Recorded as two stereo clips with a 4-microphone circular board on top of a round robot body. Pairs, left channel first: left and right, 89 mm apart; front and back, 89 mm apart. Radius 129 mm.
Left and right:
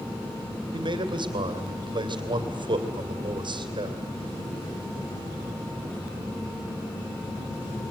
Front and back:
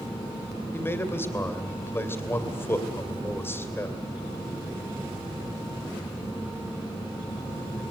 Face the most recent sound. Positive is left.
turn(degrees=-65)